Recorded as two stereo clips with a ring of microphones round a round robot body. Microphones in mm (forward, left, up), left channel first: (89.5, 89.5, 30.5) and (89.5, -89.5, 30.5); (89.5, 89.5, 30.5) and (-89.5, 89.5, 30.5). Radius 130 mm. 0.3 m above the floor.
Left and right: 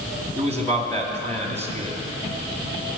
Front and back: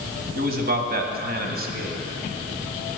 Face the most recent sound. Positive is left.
turn(degrees=170)